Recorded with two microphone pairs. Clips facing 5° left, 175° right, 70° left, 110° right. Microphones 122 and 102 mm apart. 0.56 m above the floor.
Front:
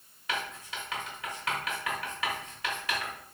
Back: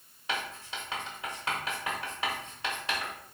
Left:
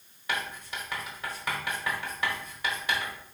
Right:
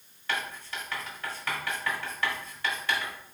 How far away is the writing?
About 1.4 m.